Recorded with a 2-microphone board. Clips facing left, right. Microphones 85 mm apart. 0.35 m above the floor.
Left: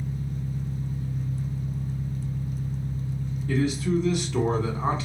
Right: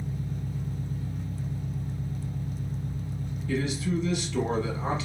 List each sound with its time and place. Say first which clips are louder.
0.0 s an engine running: left 2 dB; 60° right (ahead or behind), 1.1 m
3.5 s a man speaking: left 4 dB; 35° left (ahead or behind), 1.1 m